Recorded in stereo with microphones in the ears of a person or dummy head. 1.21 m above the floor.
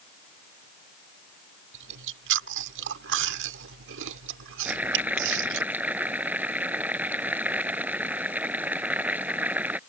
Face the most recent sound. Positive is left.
turn(degrees=-10)  # may be behind; listen again after turning